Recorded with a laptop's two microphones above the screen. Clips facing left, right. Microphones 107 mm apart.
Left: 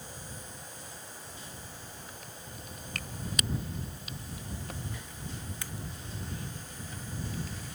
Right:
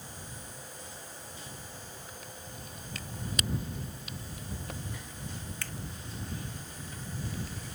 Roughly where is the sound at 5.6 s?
Centre.